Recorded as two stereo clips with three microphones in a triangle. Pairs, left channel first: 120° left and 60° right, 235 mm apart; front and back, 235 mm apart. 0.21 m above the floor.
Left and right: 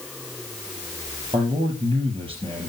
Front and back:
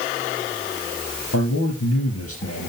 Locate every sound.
1.3 s a man speaking: 5° left, 4 m